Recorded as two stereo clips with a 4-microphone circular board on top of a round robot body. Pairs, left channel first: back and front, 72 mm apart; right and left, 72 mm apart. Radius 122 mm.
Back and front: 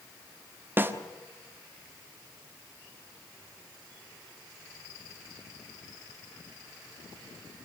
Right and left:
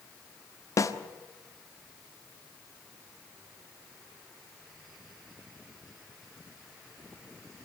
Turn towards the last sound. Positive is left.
turn(degrees=-55)